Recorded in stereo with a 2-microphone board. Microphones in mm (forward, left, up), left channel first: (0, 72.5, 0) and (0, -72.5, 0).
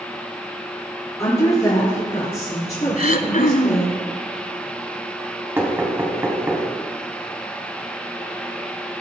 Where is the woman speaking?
25° left (ahead or behind), 3.5 m; by 4.0 s 55° left (ahead or behind), 3 m.